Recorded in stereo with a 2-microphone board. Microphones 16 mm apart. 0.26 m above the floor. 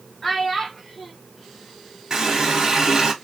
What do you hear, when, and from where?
0.2 s a child speaking: 5° left (ahead or behind), 1.5 m
2.1 s a running tap: 40° right (ahead or behind), 1.1 m